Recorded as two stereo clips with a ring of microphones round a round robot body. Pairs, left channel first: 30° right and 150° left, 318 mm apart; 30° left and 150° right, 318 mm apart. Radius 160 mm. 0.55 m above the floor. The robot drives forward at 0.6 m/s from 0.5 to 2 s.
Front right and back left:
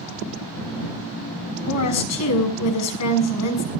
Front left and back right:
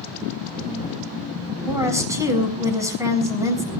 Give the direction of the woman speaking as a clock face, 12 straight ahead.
2 o'clock.